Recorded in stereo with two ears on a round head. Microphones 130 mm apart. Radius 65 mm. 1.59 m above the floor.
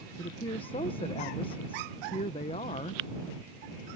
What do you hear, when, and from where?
0.2 s a woman speaking: 35° left (ahead or behind)